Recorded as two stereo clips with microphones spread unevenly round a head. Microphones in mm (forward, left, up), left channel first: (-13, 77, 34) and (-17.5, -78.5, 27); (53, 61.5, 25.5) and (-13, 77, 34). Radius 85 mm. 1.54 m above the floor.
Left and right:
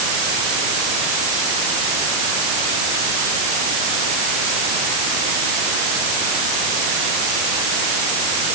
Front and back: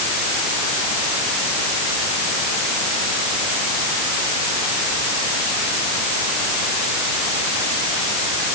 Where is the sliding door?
I don't hear a sliding door.